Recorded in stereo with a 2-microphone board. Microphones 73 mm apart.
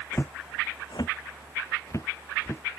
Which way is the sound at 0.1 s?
30° left (ahead or behind).